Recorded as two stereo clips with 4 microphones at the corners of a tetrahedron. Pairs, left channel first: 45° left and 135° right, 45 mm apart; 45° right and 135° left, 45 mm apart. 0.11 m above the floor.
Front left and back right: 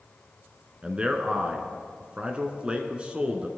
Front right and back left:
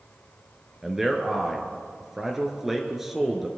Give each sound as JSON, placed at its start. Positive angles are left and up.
{"t": 0.8, "sound": "a man speaking", "azimuth_deg": -150, "distance_m": 1.2}